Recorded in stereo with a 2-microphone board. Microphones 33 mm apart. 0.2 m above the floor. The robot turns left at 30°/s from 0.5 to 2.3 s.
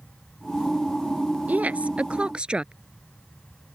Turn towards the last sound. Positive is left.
turn(degrees=-35)  # may be behind; listen again after turning